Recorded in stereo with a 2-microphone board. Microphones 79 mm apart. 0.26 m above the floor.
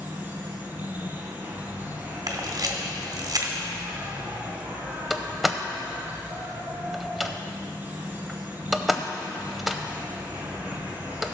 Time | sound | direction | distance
0.0 | an insect | 25° right (ahead or behind) | 1.8 m
2.3 | a camera shutter | 50° right (ahead or behind) | 1.6 m
5.1 | a door slam | centre (ahead or behind) | 0.6 m